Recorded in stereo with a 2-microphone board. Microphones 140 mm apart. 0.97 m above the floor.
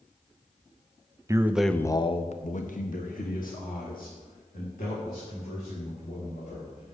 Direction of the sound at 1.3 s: 25° right (ahead or behind).